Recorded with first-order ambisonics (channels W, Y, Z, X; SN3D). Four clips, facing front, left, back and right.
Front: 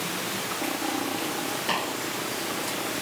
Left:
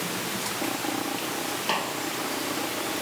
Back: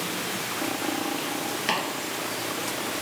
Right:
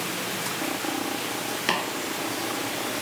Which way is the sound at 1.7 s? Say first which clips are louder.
Right 2 dB, back 1 dB; 115° right.